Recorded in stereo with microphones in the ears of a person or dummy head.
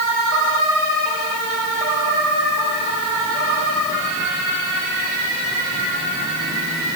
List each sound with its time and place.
Only background noise.